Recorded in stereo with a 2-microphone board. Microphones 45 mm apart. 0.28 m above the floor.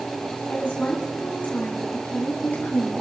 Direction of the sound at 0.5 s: 40° left (ahead or behind).